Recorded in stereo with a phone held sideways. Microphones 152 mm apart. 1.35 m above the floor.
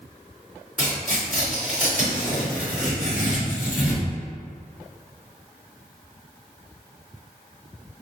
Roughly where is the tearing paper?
Left.